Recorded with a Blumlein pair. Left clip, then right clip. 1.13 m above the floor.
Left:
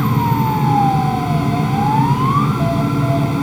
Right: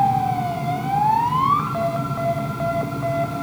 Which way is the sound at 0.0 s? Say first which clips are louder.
Left 1 dB; 60° left.